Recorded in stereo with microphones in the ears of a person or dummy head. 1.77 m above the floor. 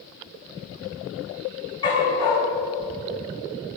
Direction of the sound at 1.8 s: 25° left (ahead or behind).